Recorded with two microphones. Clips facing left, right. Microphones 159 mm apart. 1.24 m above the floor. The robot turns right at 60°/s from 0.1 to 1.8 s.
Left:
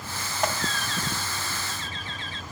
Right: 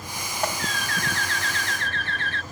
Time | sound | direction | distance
0.6 | a bird | 140° right | ?